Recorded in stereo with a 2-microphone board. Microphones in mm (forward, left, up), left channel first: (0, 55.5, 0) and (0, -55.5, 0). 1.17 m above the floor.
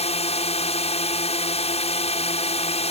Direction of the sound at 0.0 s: 70° left (ahead or behind).